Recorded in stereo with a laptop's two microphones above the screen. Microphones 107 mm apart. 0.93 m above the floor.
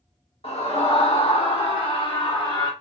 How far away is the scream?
About 2 m.